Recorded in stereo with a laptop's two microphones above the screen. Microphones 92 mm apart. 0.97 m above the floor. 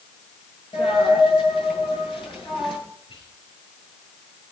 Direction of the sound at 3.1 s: 70° left (ahead or behind).